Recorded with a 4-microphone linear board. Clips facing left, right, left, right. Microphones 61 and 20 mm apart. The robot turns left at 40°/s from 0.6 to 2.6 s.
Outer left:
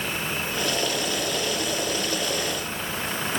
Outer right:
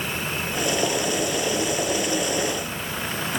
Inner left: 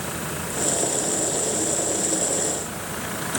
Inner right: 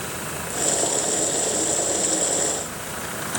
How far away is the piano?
No piano in this recording.